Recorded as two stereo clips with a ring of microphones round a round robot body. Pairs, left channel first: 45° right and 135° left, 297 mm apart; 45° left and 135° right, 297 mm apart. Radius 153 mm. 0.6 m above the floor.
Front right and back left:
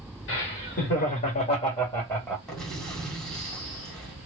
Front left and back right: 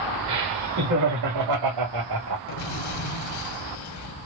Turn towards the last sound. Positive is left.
turn(degrees=45)